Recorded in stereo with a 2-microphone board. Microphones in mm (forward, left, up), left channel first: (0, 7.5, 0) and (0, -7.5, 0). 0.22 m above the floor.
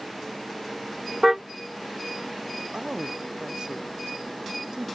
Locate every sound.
1.2 s a car horn: 25° right (ahead or behind)
2.7 s a woman speaking: 65° right (ahead or behind)